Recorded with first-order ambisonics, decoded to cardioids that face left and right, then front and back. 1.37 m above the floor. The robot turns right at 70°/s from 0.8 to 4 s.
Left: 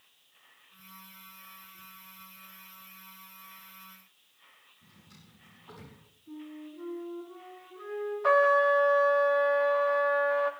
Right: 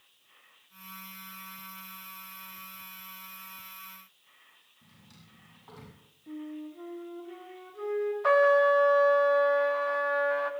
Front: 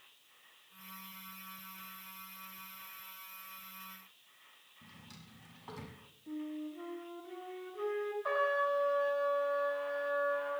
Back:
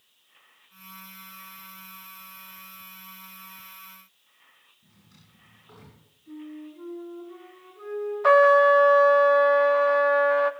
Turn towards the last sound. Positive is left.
turn(degrees=-175)